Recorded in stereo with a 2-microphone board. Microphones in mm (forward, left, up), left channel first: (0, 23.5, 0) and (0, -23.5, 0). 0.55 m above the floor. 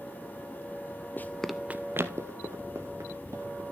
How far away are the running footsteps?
About 0.7 m.